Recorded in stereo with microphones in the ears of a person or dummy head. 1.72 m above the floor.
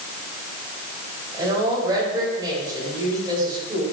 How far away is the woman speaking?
About 9.5 m.